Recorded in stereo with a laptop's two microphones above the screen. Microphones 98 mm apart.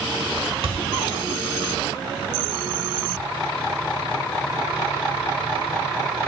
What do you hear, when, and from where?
0.6 s a thud: 75° right (ahead or behind), 1.7 m